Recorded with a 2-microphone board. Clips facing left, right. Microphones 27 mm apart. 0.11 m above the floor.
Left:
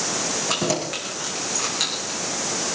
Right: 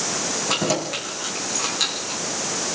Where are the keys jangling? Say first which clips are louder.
Right 2 dB; 5° left (ahead or behind), 6 m.